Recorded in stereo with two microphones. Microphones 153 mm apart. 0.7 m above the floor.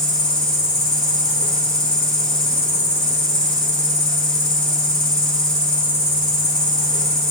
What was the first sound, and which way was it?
An insect, 35° left (ahead or behind).